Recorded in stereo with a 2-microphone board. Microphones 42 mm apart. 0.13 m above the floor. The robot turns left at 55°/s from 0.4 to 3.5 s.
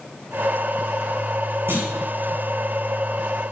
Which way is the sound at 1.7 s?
85° right.